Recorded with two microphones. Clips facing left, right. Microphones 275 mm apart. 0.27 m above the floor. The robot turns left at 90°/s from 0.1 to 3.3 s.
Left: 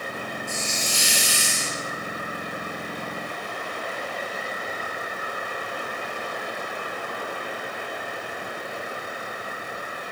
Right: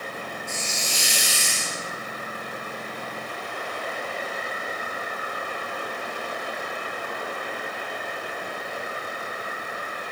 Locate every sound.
0.5 s a hiss: 140° left, 1.2 m; by 1.8 s 25° left, 1.2 m